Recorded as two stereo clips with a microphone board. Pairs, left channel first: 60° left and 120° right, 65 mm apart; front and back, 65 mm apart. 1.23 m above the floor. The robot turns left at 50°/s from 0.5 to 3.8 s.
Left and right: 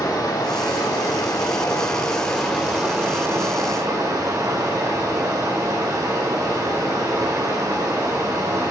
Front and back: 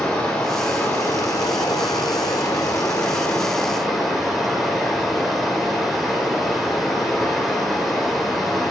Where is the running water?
75° left, 3.5 m; by 8.7 s 90° right, 3.5 m.